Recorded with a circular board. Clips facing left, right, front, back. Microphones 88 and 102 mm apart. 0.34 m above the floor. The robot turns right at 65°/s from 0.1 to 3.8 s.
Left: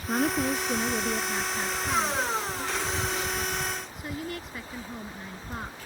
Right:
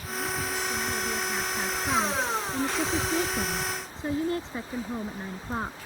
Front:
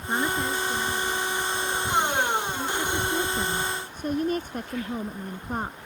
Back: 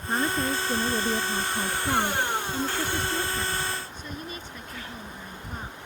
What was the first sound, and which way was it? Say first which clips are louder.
A woman speaking: left 6 dB, even; 85° left.